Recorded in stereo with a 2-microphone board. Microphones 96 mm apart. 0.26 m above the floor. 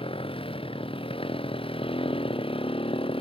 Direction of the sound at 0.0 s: 75° left (ahead or behind).